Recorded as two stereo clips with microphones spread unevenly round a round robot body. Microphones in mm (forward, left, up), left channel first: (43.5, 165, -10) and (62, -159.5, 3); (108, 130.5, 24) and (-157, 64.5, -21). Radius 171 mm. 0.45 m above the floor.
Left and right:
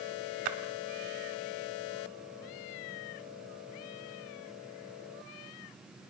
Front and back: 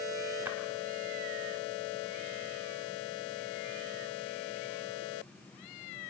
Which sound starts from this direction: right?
A splash, at 0.5 s.